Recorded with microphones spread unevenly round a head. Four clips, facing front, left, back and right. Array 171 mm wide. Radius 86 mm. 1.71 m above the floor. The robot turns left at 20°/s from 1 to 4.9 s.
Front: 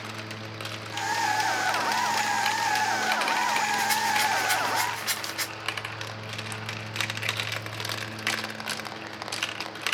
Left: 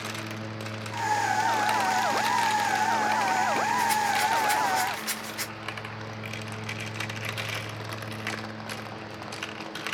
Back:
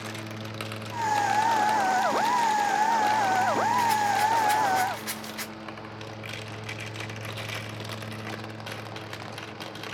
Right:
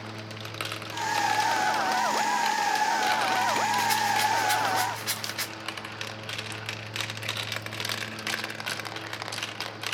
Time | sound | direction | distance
3.8 | a rattle | 170° right | 1.9 m